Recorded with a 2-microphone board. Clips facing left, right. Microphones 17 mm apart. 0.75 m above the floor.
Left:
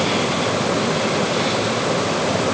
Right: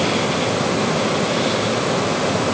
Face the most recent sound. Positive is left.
No sound to turn to.